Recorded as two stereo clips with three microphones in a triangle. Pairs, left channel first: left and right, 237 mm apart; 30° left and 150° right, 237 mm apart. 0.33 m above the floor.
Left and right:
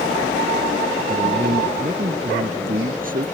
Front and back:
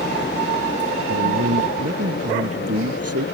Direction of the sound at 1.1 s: 145° right.